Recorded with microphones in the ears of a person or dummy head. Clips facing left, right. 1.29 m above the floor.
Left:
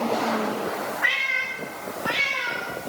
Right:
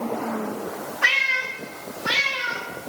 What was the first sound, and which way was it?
A cat meowing, 60° right (ahead or behind).